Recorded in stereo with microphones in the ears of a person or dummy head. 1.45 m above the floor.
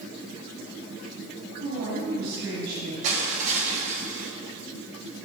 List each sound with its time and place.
1.6 s a woman speaking: 90° right, 3.5 m
3.0 s crushing: 40° right (ahead or behind), 1.3 m